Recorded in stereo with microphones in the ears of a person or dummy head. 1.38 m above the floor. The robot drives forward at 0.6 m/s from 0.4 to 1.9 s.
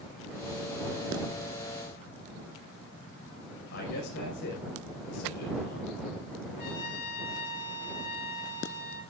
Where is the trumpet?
55° left (ahead or behind), 3.5 m.